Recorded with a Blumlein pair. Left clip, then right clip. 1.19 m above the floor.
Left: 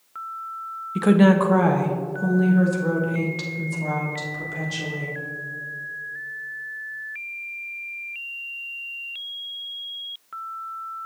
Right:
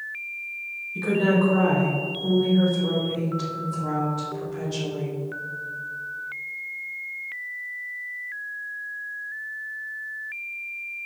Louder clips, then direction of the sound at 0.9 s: Left 4 dB; 60° left.